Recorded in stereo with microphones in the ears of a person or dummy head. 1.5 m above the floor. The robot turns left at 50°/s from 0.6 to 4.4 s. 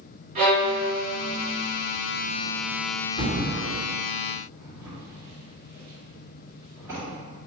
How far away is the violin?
About 1.8 m.